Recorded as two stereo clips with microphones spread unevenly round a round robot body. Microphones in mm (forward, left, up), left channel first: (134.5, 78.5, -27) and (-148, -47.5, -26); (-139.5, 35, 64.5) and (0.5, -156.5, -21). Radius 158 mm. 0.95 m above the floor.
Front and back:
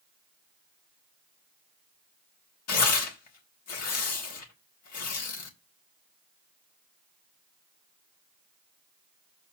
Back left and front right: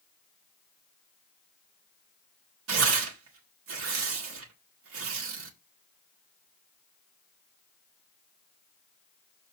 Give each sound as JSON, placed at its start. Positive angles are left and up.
{"t": 2.7, "sound": "tearing paper", "azimuth_deg": -20, "distance_m": 1.7}